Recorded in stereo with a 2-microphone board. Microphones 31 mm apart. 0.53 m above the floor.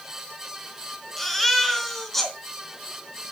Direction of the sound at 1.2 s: 5° left (ahead or behind).